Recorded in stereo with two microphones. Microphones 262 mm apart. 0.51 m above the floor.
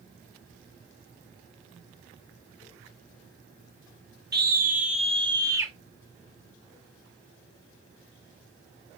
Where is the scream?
40° right (ahead or behind), 1.7 m; by 5.7 s 10° right (ahead or behind), 1.8 m.